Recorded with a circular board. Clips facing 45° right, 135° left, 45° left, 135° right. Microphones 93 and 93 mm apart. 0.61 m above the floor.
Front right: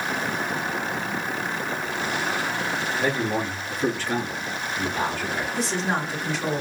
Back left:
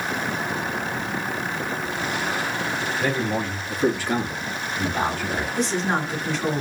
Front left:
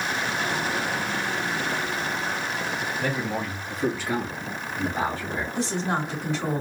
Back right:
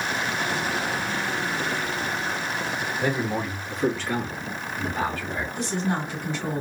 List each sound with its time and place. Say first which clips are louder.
3.0 s a man speaking: even, back right 4 dB; 90° right, 0.9 m; by 5.5 s 90° left, 1.4 m
5.5 s a woman speaking: back left 3 dB, front left 1 dB; 40° left, 1.8 m